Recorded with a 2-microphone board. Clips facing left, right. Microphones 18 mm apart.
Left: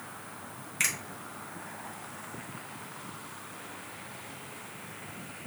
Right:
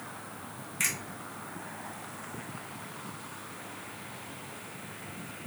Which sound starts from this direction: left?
A finger snap, at 0.8 s.